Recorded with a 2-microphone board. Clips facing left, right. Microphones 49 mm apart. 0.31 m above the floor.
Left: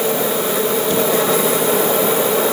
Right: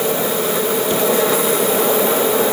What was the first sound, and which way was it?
Only background noise.